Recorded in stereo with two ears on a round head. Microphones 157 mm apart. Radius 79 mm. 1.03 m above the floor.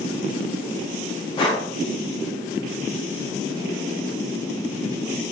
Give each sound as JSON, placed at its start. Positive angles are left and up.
{"t": 1.4, "sound": "breathing", "side_deg": 25, "distance_m": 0.8}